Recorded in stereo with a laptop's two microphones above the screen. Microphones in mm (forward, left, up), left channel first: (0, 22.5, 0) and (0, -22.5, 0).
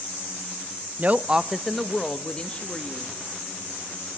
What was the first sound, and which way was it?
A woman speaking, 40° right (ahead or behind).